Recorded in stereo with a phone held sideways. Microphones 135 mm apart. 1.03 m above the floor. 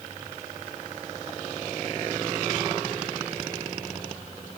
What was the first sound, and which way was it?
Only background noise.